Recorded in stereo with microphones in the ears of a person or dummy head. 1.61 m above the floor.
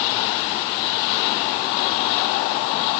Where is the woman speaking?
No woman speaking in this recording.